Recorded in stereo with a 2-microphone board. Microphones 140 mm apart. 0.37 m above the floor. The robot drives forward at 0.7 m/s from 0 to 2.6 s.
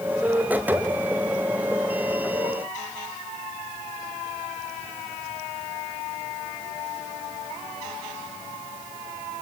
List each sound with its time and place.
Only background noise.